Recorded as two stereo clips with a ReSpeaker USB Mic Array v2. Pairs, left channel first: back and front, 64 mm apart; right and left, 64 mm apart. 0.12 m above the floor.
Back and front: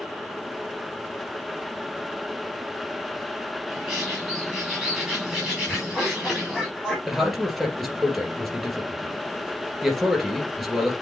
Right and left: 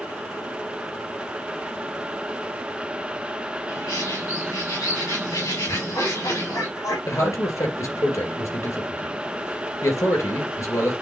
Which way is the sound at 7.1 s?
90° right.